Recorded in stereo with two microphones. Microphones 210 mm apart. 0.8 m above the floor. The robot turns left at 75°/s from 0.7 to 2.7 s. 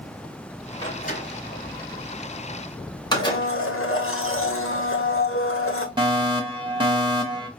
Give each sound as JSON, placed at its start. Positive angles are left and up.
{"t": 0.8, "sound": "a door slam", "side_deg": 15, "distance_m": 2.5}
{"t": 3.1, "sound": "a blender", "side_deg": 80, "distance_m": 1.1}
{"t": 6.0, "sound": "a fire alarm", "side_deg": -25, "distance_m": 1.4}